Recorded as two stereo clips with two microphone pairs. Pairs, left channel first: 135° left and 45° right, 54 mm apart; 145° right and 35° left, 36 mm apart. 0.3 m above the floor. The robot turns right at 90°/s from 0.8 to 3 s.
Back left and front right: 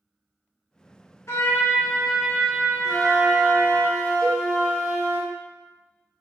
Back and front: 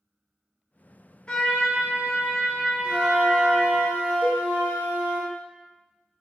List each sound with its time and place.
1.3 s a trumpet: 155° left, 0.8 m; by 3.8 s 50° right, 0.8 m
2.8 s a flute: 25° right, 1.3 m; by 5.2 s 10° right, 1.3 m
4.2 s a cowbell: 55° left, 0.7 m